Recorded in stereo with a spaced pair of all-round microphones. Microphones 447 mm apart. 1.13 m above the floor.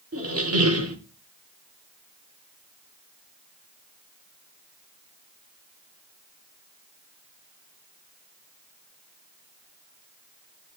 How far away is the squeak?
About 1.2 m.